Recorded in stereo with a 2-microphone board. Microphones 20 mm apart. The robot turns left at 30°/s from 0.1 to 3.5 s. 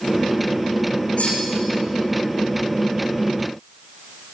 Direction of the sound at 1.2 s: 85° left.